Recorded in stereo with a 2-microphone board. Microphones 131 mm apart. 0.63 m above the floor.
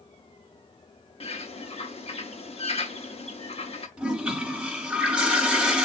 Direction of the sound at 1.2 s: 55° left (ahead or behind).